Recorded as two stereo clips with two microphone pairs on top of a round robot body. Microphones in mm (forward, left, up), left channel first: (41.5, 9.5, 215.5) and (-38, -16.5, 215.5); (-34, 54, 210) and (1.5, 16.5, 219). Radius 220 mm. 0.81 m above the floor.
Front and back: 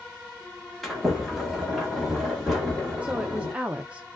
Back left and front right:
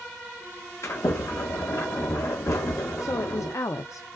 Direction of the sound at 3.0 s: 125° left.